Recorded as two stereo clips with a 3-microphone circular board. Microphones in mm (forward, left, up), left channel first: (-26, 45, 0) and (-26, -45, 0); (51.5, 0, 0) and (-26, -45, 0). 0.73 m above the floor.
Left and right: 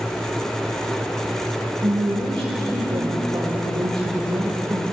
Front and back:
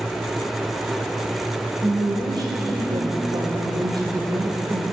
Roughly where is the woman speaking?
Behind right.